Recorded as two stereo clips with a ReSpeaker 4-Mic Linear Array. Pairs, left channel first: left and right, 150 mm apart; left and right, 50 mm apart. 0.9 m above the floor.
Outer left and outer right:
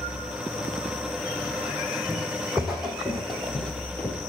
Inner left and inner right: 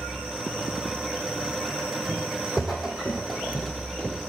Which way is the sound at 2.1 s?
5° right (ahead or behind).